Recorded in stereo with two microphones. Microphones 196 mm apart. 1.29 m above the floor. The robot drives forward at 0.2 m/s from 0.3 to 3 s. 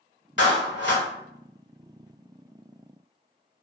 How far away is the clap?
About 1.1 m.